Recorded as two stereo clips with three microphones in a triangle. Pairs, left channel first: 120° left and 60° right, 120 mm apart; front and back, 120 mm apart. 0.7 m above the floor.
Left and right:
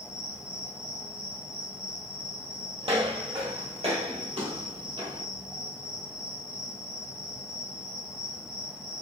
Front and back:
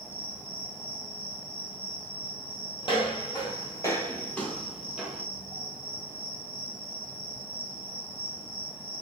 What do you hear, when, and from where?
0.0 s an insect: 130° right, 1.1 m
2.8 s footsteps: 30° right, 1.3 m; by 5.2 s 105° right, 1.1 m